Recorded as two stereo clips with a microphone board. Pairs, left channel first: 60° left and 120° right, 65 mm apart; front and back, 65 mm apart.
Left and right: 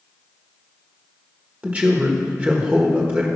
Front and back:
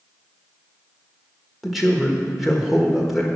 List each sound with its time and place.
1.6 s a man speaking: 90° right, 1.2 m